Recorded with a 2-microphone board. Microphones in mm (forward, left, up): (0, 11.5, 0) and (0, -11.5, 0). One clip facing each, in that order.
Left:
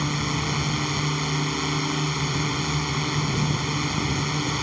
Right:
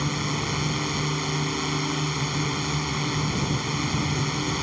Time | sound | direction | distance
0.0 | a drone | 5° left (ahead or behind) | ?